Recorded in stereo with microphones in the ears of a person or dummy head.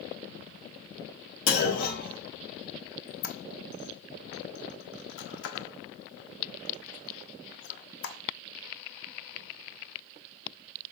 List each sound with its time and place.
1.5 s a clunk: 50° left (ahead or behind), 4.5 m
3.1 s a squeak: 70° left (ahead or behind), 1.1 m